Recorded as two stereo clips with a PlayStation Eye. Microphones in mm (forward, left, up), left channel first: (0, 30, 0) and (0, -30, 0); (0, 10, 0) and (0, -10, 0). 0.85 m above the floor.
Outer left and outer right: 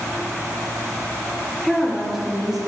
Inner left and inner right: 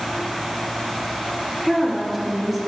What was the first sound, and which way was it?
A woman speaking, 10° right (ahead or behind).